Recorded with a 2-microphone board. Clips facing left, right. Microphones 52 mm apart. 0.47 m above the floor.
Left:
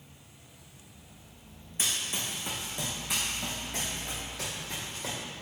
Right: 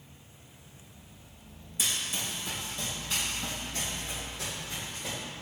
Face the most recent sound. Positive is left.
turn(degrees=80)